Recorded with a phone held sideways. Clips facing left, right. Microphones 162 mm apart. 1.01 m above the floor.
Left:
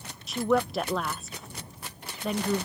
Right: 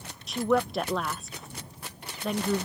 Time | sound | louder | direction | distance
0.3 | a woman speaking | even | centre (ahead or behind) | ?